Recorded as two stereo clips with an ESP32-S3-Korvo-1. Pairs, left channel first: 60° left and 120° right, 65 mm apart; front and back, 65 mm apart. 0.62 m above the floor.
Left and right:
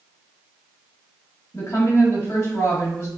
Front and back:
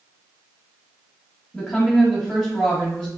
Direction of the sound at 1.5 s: 80° left.